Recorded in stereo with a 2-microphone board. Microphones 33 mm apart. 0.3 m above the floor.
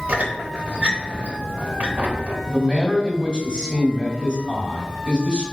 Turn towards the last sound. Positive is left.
turn(degrees=15)  # may be behind; listen again after turning